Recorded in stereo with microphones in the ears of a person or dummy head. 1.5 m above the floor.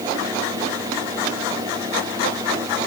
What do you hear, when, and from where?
Only background noise.